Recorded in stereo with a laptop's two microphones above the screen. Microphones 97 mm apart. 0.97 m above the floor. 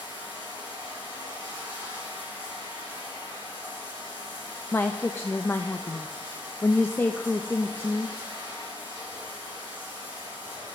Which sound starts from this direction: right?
Running water, at 0.0 s.